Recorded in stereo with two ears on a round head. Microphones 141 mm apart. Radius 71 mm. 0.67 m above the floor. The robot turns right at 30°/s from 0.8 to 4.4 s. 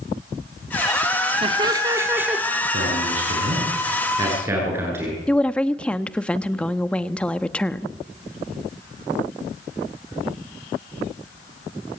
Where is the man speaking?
65° right, 9.5 m; by 5.2 s 15° right, 9.5 m.